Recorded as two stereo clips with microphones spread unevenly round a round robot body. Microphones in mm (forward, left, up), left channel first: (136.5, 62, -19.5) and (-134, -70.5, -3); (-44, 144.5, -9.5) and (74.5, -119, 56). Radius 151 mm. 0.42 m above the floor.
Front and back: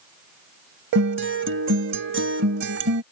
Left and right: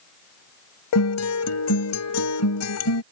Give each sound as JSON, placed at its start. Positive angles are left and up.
{"t": 0.9, "sound": "a guitar", "azimuth_deg": 150}